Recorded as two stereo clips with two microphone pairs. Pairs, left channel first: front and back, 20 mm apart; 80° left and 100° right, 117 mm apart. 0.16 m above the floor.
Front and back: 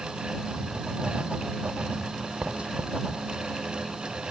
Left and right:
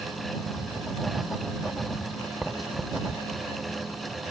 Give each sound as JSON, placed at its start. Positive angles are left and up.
{"t": 0.5, "sound": "writing", "azimuth_deg": 170}